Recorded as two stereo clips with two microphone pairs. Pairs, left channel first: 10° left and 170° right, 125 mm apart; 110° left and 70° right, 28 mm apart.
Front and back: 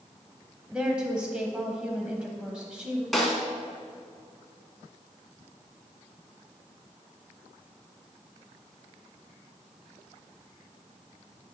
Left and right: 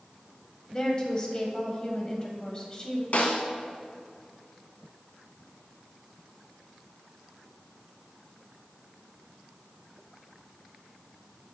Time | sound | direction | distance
0.7 | a woman speaking | 115° left | 1.0 m
3.1 | a snare drum | 100° left | 1.3 m